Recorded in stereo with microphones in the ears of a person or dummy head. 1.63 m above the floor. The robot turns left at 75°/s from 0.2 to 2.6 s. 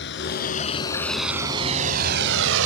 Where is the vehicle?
70° left (ahead or behind); by 2.7 s 85° right.